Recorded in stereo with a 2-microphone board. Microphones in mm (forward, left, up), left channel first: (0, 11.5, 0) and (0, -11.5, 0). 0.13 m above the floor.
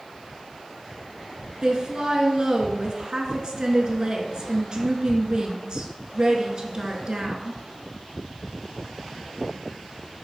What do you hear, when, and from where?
1.6 s a woman speaking: 40° right (ahead or behind), 1.4 m